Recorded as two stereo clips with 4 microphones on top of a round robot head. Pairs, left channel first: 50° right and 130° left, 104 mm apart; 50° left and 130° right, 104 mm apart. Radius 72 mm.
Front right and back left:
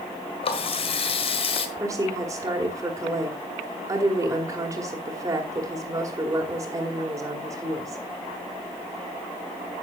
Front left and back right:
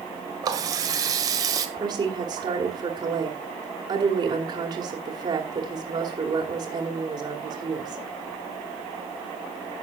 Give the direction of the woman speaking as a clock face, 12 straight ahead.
6 o'clock.